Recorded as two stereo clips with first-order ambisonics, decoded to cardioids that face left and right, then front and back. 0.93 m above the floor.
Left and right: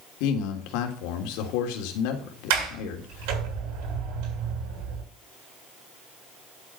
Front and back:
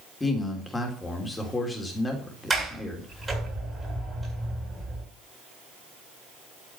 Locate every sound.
0.2 s a man speaking: 80° left, 3 m
2.5 s a sliding door: 100° right, 8.5 m